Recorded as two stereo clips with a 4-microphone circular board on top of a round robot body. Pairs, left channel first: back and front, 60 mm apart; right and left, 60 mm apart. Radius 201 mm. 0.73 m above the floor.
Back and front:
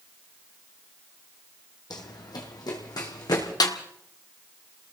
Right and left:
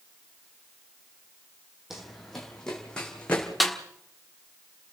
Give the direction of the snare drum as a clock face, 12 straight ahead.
6 o'clock.